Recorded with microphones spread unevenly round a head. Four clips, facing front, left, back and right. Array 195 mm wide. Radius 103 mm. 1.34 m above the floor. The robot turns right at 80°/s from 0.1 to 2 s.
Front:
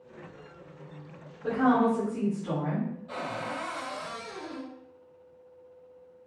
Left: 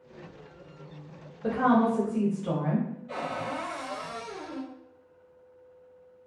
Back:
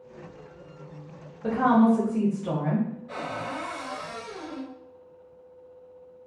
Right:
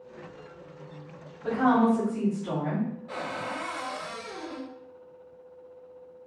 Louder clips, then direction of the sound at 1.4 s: Right 1 dB, back 3 dB; 140° left.